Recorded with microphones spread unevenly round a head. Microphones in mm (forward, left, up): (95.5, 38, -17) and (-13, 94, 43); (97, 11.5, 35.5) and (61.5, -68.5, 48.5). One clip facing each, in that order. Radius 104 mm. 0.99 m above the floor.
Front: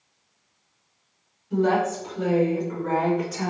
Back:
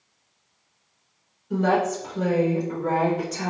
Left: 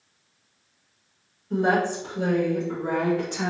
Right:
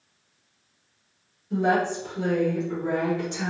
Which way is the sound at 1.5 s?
130° left.